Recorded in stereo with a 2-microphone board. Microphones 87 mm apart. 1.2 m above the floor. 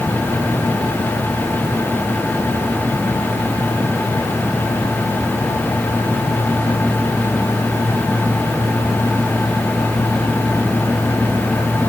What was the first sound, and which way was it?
Only background noise.